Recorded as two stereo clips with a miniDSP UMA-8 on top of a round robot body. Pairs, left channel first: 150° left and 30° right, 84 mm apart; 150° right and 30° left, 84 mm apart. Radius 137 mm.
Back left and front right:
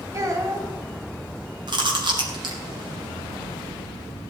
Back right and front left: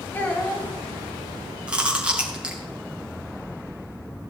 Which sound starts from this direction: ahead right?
Chewing, at 1.7 s.